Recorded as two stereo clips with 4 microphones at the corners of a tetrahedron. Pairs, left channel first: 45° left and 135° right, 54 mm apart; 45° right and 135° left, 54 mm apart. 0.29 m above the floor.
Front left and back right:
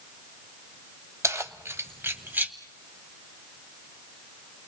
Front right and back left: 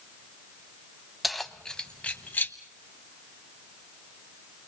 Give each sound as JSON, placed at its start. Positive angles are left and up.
{"t": 1.2, "sound": "keys jangling", "azimuth_deg": -135, "distance_m": 1.2}